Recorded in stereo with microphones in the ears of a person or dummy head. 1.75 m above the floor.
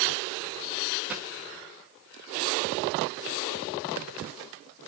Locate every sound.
1.1 s a dropped coin: 5° right (ahead or behind), 1.2 m